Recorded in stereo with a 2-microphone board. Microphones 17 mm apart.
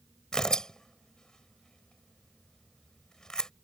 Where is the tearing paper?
35° left (ahead or behind).